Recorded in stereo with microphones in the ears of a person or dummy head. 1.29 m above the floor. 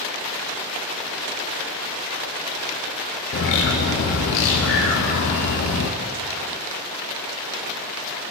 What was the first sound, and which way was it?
A bird, 45° left (ahead or behind).